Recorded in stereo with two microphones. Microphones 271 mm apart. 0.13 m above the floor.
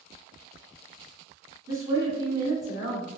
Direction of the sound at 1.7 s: 15° right (ahead or behind).